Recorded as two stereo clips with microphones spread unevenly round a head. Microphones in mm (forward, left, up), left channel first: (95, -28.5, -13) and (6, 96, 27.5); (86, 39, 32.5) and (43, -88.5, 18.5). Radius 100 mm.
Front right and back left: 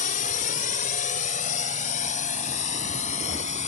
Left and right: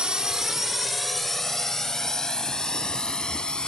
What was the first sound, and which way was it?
A drone, 25° right.